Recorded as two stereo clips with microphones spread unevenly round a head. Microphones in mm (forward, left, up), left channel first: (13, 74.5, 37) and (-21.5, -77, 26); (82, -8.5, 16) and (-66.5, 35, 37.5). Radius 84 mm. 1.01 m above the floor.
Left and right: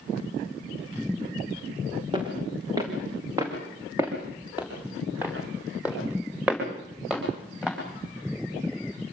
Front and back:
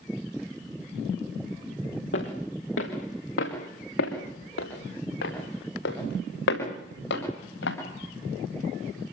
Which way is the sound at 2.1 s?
40° right.